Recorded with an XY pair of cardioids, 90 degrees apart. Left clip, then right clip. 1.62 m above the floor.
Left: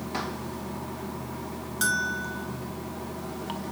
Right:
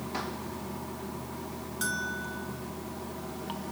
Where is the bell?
45° left, 1.1 m.